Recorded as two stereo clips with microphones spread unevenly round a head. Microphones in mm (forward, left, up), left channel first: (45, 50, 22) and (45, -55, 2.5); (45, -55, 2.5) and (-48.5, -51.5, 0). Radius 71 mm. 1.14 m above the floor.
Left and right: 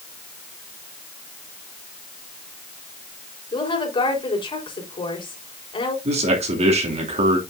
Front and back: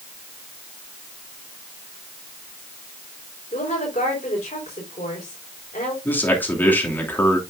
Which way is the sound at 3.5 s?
45° left.